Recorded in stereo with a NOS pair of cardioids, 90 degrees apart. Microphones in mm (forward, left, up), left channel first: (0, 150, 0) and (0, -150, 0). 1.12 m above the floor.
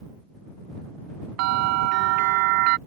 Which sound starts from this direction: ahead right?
A bell, at 1.4 s.